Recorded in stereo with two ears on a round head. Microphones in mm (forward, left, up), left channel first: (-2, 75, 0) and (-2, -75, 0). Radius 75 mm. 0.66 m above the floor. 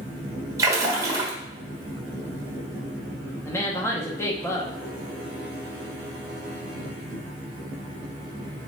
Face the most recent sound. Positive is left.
turn(degrees=15)  # may be behind; listen again after turning